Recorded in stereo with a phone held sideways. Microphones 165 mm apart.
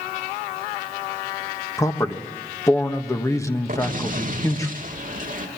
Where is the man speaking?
20° left (ahead or behind), 1.6 m.